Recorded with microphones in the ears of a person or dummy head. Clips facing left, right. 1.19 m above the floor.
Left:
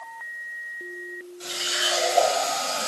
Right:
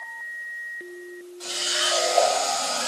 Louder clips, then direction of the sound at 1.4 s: Right 1 dB; 30° left (ahead or behind).